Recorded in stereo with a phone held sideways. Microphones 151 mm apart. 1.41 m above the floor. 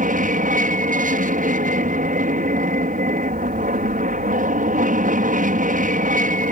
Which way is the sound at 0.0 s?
60° right (ahead or behind).